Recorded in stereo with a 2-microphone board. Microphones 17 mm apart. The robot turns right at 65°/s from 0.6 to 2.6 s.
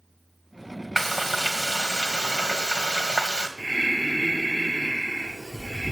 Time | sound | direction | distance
1.0 | frying | 160° left | 2 m
3.6 | breathing | 30° right (ahead or behind) | 1.2 m